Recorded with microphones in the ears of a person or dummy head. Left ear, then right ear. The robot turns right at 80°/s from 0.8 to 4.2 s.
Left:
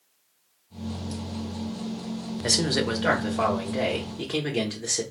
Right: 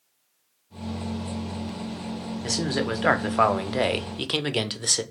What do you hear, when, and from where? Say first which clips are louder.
2.4 s a man speaking: left 3 dB; 160° left, 0.5 m; by 5.0 s 55° right, 0.5 m